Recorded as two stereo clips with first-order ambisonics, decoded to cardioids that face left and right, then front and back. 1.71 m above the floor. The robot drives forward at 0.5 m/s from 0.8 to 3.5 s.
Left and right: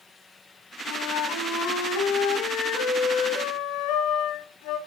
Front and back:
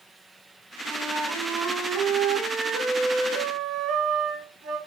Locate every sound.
0.8 s a flute: 120° left, 3.5 m; by 4.8 s 135° left, 4.5 m